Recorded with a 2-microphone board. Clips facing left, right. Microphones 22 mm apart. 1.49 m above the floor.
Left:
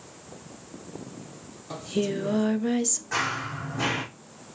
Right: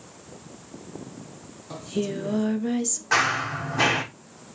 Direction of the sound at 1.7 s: 10° left (ahead or behind).